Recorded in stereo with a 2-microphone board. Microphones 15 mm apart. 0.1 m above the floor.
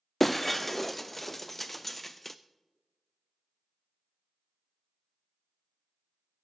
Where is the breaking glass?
10° left (ahead or behind), 0.5 m.